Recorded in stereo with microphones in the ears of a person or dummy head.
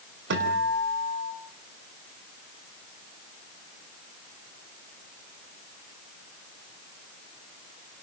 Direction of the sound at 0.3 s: 60° right (ahead or behind).